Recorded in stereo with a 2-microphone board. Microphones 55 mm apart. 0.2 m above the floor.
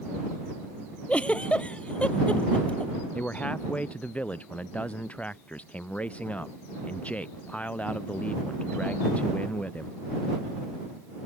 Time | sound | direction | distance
1.1 | a giggle | 25° left (ahead or behind) | ?
3.1 | a man speaking | 25° left (ahead or behind) | ?